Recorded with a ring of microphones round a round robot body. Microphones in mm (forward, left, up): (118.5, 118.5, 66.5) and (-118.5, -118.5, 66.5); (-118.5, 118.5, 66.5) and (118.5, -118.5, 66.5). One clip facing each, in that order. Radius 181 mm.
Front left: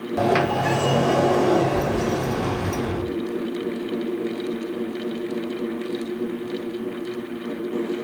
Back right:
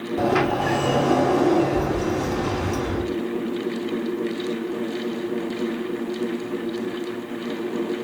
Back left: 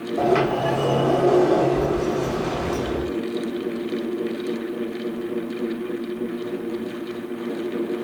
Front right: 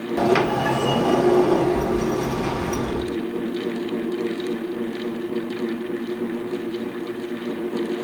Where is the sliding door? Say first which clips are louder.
Even, even; 10° left, 1.9 m.